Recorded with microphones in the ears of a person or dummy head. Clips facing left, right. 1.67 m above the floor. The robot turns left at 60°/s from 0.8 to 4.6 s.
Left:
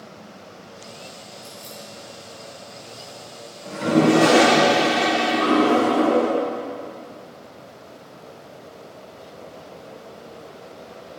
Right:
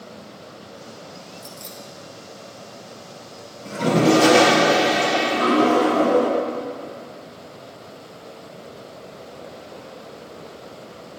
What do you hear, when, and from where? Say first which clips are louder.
1.4 s keys jangling: right 1 dB; 30° right (ahead or behind), 1.1 m; by 1.8 s 10° right (ahead or behind), 1.1 m
3.6 s a toilet flushing: even; 50° right, 2.5 m; by 6.3 s 110° right, 2.5 m